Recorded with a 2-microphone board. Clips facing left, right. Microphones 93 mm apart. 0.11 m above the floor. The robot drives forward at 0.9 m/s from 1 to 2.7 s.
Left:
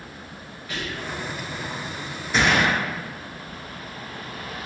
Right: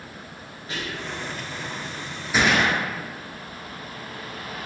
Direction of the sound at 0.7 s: 30° right (ahead or behind).